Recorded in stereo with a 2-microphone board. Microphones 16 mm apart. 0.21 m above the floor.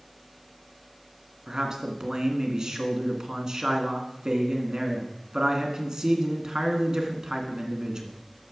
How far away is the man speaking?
About 1.9 m.